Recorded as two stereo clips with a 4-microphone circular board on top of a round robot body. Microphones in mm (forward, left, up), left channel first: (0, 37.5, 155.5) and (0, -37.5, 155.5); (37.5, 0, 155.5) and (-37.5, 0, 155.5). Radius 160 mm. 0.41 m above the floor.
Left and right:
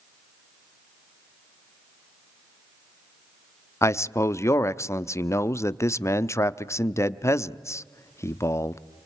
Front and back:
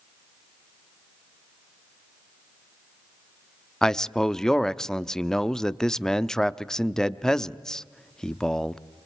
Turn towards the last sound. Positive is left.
turn(degrees=80)